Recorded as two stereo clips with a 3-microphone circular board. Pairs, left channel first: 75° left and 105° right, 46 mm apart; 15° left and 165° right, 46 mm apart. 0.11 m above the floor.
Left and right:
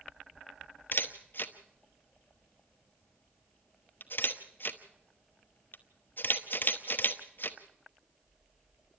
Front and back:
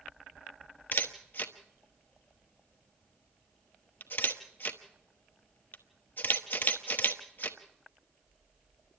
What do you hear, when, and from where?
0.9 s a camera shutter: 45° left, 1.0 m